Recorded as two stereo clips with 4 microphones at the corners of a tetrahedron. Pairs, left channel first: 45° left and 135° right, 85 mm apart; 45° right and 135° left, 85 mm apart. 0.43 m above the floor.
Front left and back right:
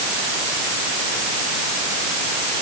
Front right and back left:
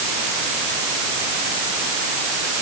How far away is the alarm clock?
I don't hear an alarm clock.